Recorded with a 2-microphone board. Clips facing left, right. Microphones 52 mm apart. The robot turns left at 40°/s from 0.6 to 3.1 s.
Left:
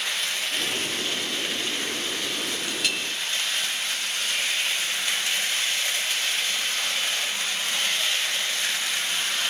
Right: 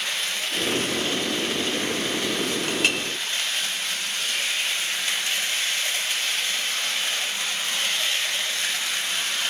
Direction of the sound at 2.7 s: 40° right (ahead or behind).